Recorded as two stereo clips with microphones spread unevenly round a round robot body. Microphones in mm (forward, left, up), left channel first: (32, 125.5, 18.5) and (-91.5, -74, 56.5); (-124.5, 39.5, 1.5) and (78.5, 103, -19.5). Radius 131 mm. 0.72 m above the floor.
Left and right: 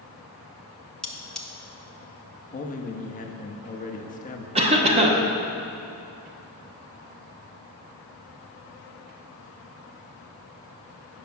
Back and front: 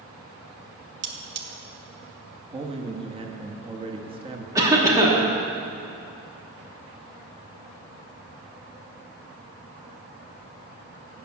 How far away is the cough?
About 0.9 m.